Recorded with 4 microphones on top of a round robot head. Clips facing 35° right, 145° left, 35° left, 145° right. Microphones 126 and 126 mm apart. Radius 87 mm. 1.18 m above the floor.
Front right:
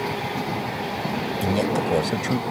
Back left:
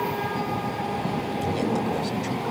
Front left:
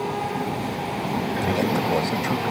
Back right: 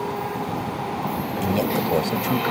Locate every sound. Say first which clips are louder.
1.4 s a man speaking: front right 3 dB, back right 2 dB; 70° right